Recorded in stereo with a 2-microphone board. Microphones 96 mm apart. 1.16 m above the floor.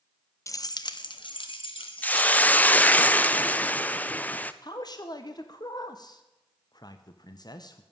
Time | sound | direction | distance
0.5 | keys jangling | 35° left (ahead or behind) | 0.5 m
2.0 | a hiss | 15° left (ahead or behind) | 0.5 m
4.6 | a man speaking | 50° left (ahead or behind) | 0.9 m